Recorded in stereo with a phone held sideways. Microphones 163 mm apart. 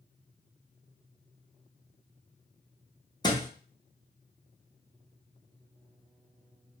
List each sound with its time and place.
3.2 s a thud: 25° left (ahead or behind), 0.9 m